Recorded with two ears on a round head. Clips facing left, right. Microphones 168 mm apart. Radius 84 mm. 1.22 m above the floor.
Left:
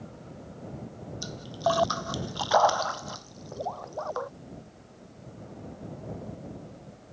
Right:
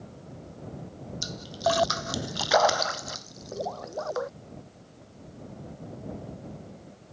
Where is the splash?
25° right (ahead or behind).